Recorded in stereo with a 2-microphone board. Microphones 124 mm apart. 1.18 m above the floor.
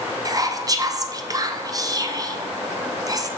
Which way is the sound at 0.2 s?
30° right (ahead or behind).